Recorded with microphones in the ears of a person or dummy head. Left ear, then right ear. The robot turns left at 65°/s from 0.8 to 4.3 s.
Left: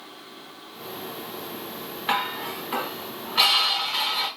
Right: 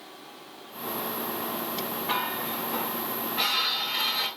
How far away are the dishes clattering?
About 1.0 m.